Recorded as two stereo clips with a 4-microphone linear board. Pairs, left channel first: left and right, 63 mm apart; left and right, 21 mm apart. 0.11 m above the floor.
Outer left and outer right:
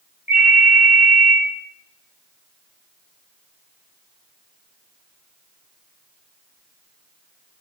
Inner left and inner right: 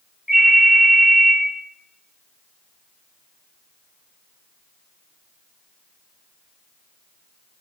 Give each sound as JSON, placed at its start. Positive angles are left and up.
{"t": 0.3, "sound": "a ringtone", "side_deg": -25, "distance_m": 1.1}